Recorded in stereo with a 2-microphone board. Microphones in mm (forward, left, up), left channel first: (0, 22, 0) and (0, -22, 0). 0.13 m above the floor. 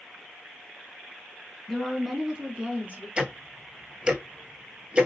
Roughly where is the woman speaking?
Centre.